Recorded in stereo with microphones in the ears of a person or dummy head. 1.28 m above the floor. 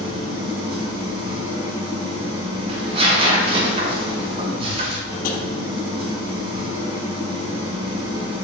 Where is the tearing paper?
40° right (ahead or behind), 1.0 m.